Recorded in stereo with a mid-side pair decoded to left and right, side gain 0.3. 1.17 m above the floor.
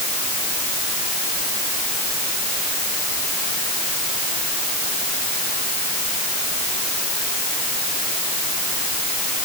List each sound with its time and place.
Only background noise.